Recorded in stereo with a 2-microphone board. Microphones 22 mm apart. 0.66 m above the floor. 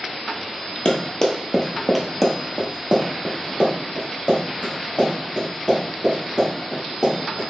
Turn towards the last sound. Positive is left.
turn(degrees=-50)  # may be behind; listen again after turning